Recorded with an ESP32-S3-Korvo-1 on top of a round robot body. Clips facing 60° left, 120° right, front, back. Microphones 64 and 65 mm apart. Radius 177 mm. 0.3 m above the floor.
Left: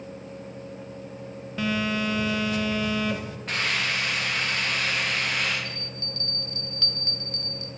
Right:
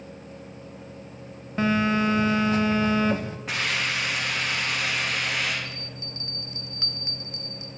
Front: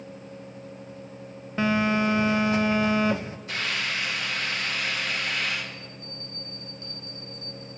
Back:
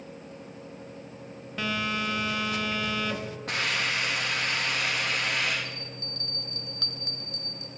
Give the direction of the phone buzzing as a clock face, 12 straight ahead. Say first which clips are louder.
Right 4 dB, front 7 dB; 2 o'clock.